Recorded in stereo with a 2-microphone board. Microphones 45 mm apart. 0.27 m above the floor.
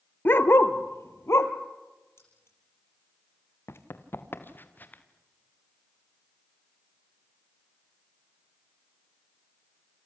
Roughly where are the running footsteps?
Left.